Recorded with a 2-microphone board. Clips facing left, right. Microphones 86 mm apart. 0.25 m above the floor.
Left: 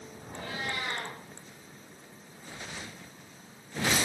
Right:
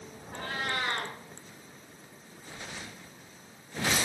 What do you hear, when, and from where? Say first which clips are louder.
0.3 s a cat meowing: right 3 dB; 55° right (ahead or behind), 1.7 m